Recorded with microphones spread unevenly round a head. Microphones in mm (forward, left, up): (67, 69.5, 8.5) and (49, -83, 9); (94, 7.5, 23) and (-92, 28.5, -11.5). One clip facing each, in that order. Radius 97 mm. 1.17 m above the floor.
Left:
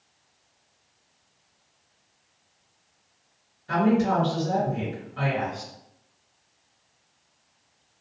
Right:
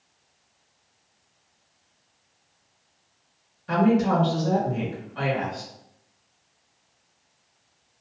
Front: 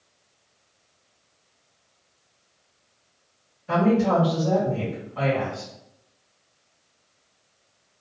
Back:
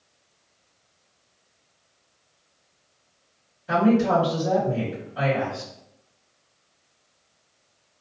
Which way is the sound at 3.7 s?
110° right.